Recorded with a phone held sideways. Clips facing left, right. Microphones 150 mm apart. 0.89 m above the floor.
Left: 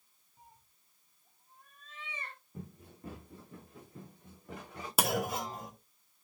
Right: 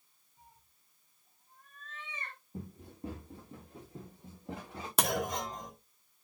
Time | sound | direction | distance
0.4 | a cat meowing | 40° left (ahead or behind) | 2 m
2.5 | running footsteps | 25° right (ahead or behind) | 5 m
5.0 | a clunk | 5° left (ahead or behind) | 1.0 m